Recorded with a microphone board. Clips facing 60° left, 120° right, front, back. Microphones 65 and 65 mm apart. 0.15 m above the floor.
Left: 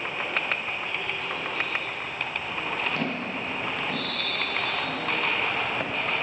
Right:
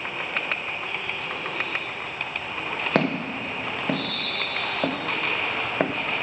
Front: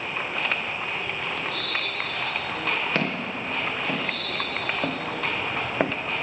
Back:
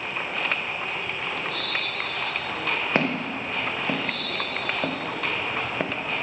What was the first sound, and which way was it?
Footsteps, 110° right.